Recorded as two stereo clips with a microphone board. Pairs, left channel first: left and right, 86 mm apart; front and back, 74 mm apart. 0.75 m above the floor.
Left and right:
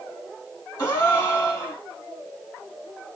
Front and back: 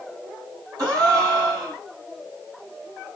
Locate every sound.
0.8 s a gasp: 140° left, 2.5 m